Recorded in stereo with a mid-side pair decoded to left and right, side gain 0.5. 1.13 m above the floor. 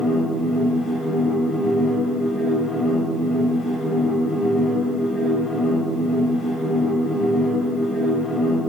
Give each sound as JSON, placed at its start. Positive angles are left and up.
{"t": 0.0, "sound": "a machine running", "azimuth_deg": 20, "distance_m": 5.5}